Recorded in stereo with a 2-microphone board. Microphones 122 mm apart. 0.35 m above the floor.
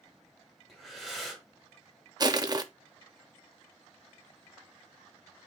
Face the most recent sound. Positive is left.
turn(degrees=-30)  # may be behind; listen again after turning